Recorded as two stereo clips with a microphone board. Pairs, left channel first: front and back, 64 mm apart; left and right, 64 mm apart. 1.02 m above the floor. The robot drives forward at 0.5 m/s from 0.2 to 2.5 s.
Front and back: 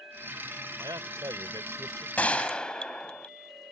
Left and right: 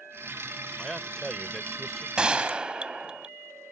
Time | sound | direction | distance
0.8 | a man speaking | straight behind | ?
2.2 | a gunshot | 30° right | ?